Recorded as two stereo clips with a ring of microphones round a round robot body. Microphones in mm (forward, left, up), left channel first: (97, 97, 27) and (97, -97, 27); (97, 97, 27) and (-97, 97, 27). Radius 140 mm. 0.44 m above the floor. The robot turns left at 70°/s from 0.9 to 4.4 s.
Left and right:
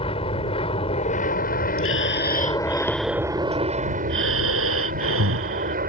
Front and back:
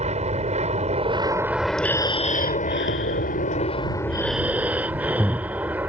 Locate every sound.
0.0 s an aircraft: 145° left; by 5.9 s 100° right
1.8 s breathing: 90° left; by 5.8 s 95° right